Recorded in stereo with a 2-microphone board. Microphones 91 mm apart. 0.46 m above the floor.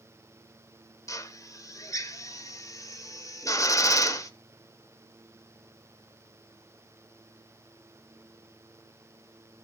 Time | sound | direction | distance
1.1 | a drill | 35° left (ahead or behind) | 0.9 m